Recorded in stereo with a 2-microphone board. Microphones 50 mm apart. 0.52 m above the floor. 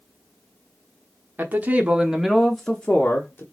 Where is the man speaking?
40° right (ahead or behind), 0.8 m; by 3.4 s 35° left (ahead or behind), 0.9 m.